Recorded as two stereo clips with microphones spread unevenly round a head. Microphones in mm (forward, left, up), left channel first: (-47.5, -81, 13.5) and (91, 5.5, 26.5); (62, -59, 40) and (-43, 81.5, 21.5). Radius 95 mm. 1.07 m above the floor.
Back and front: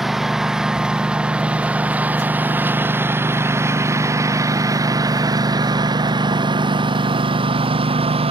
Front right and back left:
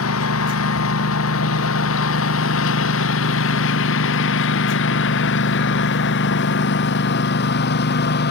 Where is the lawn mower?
55° right; by 8.3 s 25° right.